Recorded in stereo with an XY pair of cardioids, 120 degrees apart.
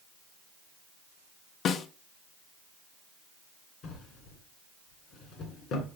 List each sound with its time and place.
1.6 s a snare drum: 60° left, 1.0 m
3.8 s a drawer: 70° left, 2.5 m